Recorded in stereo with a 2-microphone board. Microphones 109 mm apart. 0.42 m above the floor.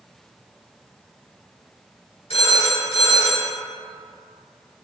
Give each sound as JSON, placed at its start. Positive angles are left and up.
{"t": 2.3, "sound": "a phone ringing", "side_deg": 70, "distance_m": 1.7}